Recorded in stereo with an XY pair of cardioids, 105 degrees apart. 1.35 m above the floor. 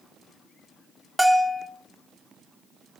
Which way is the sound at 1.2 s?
5° right.